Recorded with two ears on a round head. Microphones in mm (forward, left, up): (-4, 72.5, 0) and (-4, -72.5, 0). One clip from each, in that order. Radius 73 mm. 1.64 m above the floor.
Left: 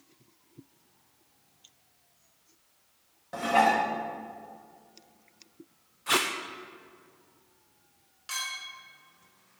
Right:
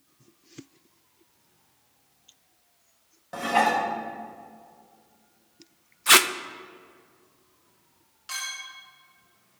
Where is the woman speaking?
No woman speaking in this recording.